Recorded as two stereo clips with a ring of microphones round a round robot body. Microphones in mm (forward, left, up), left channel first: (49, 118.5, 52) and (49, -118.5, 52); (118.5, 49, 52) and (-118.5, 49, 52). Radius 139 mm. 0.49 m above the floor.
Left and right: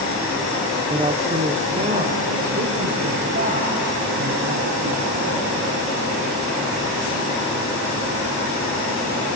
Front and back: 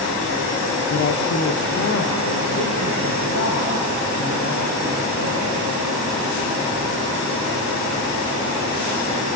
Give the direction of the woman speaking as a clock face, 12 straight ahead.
1 o'clock.